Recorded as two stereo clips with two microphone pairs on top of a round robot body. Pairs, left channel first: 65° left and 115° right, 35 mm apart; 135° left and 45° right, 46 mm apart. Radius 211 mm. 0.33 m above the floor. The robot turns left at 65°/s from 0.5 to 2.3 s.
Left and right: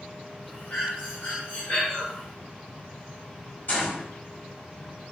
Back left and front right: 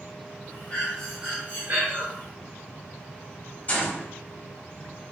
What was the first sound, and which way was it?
Breathing, 75° left.